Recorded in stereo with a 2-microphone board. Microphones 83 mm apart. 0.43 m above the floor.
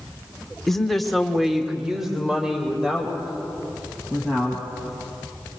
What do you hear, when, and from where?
0.7 s a woman speaking: 5° left (ahead or behind), 1.4 m; by 4.7 s 10° right (ahead or behind), 4.5 m